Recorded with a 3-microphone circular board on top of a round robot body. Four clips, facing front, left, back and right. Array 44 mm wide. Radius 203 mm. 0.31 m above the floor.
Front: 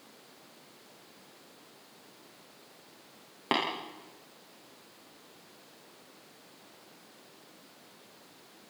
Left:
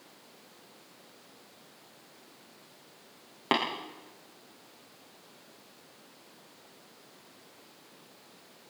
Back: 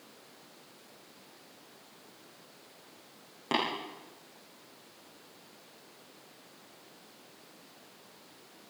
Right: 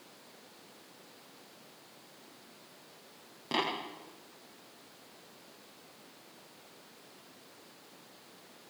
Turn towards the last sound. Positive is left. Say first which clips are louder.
# left 4 dB, front 1 dB
turn(degrees=60)